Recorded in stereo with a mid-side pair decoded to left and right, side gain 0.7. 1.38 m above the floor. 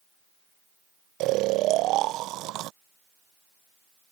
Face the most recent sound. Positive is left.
turn(degrees=-55)